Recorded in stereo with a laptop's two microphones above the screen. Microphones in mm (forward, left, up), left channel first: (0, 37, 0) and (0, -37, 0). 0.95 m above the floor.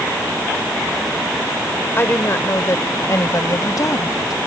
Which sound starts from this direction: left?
A woman speaking, at 2.0 s.